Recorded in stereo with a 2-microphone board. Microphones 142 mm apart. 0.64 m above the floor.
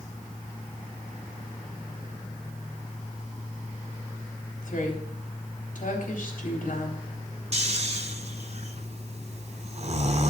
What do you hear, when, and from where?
4.6 s a woman speaking: 80° left, 3.5 m
7.5 s snoring: 55° right (ahead or behind), 0.9 m